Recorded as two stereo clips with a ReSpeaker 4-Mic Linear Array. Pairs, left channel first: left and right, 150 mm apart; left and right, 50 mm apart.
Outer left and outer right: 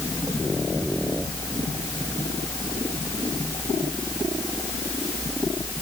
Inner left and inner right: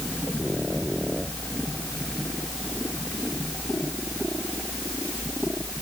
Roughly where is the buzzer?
I don't hear a buzzer.